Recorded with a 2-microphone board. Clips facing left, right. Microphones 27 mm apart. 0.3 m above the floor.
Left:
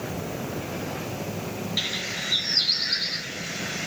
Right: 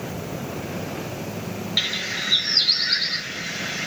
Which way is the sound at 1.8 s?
30° right (ahead or behind).